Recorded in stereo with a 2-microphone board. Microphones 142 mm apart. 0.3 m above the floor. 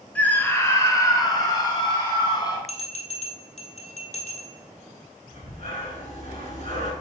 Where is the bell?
55° left (ahead or behind), 1.4 m.